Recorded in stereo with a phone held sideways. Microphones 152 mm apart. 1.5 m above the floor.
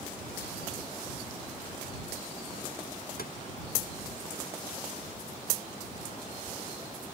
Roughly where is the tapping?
Left.